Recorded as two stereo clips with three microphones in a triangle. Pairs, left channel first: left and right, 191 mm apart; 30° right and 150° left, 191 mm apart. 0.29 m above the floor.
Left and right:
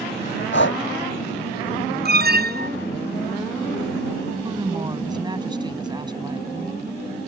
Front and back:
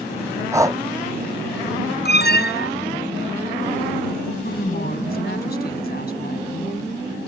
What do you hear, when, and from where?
0.5 s breathing: 75° left
2.0 s an alarm: 60° right
4.4 s a woman speaking: 25° right